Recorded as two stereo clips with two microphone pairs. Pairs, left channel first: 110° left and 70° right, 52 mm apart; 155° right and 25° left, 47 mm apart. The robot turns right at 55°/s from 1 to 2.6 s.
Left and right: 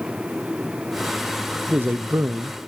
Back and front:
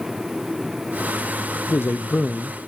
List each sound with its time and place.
1.7 s a man speaking: 125° right, 0.8 m; by 2.6 s 75° right, 0.8 m